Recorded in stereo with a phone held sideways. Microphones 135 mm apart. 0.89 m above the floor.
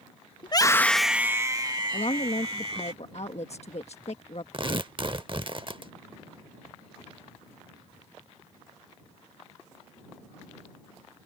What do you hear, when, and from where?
0.4 s a scream: 40° left (ahead or behind); by 2.9 s 50° right (ahead or behind)
1.9 s a woman speaking: 55° left (ahead or behind)
4.5 s tearing paper: 40° right (ahead or behind)